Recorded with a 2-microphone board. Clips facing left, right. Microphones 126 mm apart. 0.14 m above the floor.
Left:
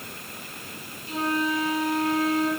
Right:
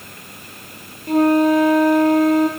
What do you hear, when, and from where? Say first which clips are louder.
1.1 s a flute: right 13 dB; 55° right (ahead or behind), 3.5 m